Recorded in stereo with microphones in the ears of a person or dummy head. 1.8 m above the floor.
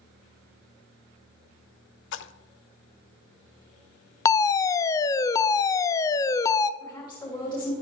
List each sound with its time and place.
2.1 s a splash: 75° left (ahead or behind), 0.7 m
4.2 s a fire alarm: 25° left (ahead or behind), 0.5 m
6.8 s a woman speaking: 20° left (ahead or behind), 5 m